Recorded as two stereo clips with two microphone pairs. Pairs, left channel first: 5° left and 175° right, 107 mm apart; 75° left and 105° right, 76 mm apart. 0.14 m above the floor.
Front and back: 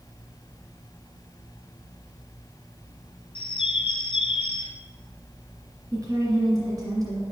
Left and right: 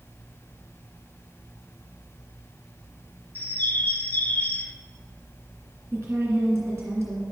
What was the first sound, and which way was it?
A bird, 20° left.